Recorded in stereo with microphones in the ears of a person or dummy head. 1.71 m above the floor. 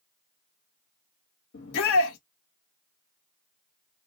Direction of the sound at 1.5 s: 55° left (ahead or behind).